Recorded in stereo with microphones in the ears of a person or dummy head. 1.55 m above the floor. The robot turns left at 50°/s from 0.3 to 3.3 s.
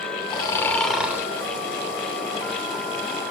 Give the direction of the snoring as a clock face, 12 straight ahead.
11 o'clock.